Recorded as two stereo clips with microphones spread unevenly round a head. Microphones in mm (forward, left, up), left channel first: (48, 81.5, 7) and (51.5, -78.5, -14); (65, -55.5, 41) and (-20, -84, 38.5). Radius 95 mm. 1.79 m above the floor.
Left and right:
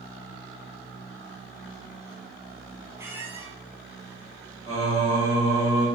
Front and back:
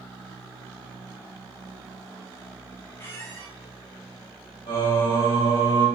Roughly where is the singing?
Ahead right.